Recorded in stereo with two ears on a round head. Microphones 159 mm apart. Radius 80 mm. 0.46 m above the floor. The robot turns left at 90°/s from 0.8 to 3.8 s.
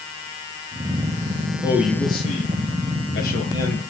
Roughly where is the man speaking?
Behind.